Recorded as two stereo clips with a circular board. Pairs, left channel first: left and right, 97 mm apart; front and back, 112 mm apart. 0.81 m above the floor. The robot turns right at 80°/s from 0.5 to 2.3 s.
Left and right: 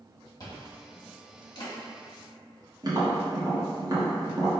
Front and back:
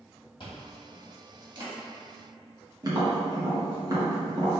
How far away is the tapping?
About 1.3 m.